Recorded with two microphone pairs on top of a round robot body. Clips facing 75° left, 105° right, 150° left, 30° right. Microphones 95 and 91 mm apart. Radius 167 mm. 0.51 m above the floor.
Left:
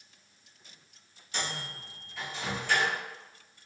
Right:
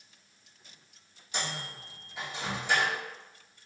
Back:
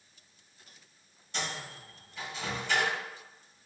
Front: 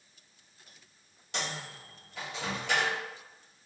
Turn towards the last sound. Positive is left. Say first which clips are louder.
# even, even
turn(degrees=-30)